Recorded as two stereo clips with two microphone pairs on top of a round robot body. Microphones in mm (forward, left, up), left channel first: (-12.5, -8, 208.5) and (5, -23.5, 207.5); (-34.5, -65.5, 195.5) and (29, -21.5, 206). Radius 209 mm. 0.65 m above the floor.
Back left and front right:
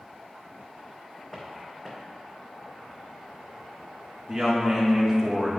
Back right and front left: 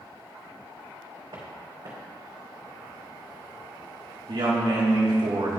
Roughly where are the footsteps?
Ahead left.